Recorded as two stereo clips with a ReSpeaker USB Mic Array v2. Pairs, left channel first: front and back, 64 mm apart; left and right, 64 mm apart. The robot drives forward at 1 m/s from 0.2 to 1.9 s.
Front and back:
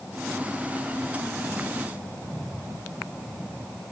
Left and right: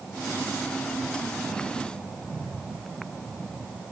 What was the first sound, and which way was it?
Only background noise.